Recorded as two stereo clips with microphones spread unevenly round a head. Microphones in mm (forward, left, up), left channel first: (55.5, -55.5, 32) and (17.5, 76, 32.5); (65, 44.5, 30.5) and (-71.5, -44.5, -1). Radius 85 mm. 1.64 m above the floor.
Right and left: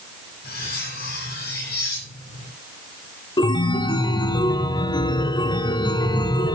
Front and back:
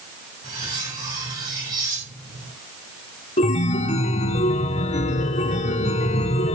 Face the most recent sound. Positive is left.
turn(degrees=-15)